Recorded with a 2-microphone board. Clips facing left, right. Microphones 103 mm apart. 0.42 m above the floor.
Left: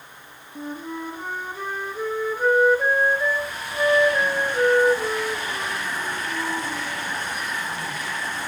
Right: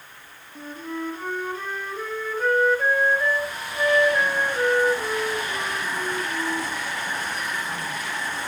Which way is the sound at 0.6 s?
10° left (ahead or behind).